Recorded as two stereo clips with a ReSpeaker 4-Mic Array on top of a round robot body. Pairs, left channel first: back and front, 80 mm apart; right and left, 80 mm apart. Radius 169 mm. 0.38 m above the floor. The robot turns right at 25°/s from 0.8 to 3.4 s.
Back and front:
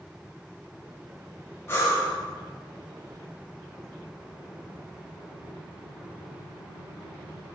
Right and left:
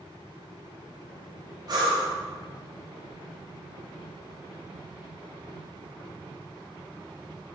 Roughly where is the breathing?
Behind left.